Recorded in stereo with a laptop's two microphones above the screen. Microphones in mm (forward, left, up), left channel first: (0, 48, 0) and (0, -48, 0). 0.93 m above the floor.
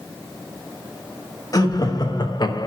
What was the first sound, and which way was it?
Laughter, 40° left (ahead or behind).